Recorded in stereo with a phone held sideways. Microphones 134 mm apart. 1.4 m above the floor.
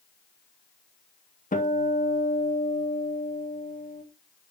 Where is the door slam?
I don't hear a door slam.